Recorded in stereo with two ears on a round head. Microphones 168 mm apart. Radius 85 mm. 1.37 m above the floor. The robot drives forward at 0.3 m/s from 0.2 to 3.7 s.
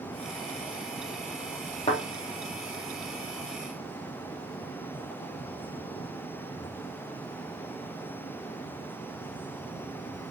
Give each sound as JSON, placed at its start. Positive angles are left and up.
{"t": 1.9, "sound": "a thud", "side_deg": 35, "distance_m": 3.5}